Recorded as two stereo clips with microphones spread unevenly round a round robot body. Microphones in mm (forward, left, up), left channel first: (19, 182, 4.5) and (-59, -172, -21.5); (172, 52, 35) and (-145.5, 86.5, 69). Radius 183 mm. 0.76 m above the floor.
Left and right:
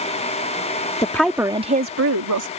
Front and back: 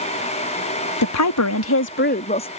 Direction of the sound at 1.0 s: 5° right.